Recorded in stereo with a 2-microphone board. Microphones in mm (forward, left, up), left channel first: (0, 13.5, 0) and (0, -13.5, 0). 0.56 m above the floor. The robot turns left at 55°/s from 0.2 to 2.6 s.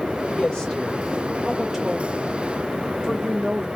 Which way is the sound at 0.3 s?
40° left (ahead or behind).